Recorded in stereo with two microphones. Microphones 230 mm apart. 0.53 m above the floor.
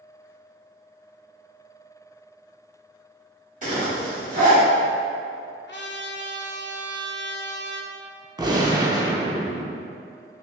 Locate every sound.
3.6 s a zipper: 35° right (ahead or behind), 1.5 m
5.7 s a trumpet: 50° left (ahead or behind), 0.5 m
8.4 s a gunshot: 15° right (ahead or behind), 0.6 m